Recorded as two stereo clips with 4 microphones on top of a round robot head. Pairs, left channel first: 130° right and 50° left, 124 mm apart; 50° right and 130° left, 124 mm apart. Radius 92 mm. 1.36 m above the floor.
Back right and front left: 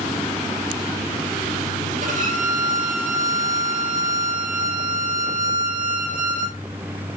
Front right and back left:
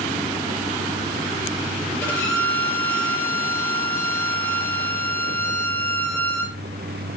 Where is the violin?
25° left, 7.5 m.